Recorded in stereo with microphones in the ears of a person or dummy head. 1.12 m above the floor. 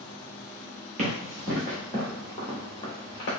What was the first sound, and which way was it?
Running footsteps, 35° right (ahead or behind).